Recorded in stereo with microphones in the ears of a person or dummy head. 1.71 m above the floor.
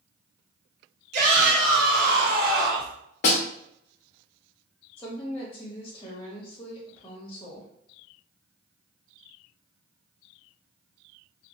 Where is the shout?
45° right (ahead or behind), 1.5 m; by 3.0 s 75° right (ahead or behind), 1.8 m.